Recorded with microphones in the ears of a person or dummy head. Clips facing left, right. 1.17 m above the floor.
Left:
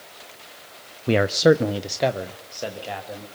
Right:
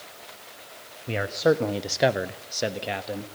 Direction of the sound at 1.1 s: 65° left (ahead or behind).